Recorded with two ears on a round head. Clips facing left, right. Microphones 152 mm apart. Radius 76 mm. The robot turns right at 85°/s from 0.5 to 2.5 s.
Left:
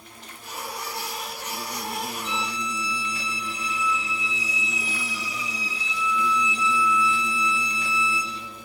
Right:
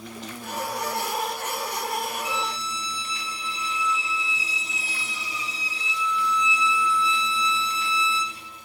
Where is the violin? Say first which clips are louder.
Even; 5° right (ahead or behind), 3 m; by 8.4 s 25° right (ahead or behind), 3 m.